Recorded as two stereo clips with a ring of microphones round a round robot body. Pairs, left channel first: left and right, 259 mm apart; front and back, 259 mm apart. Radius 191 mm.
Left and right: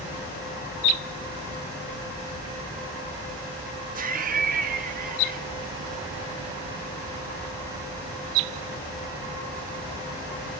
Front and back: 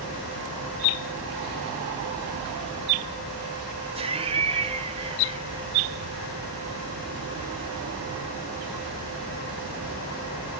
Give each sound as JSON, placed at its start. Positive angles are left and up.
{"t": 4.0, "sound": "laughter", "azimuth_deg": -125, "distance_m": 1.2}